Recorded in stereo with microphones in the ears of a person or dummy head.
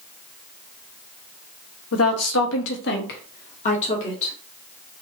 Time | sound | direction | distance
1.9 | a woman speaking | 65° left (ahead or behind) | 1.1 m